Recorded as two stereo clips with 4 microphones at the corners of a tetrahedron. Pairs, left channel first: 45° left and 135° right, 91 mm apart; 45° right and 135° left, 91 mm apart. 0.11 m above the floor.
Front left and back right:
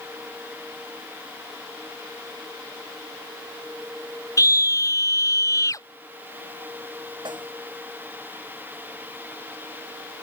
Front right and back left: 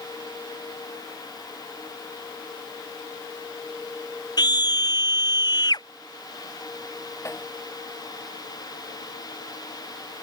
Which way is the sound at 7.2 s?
105° right.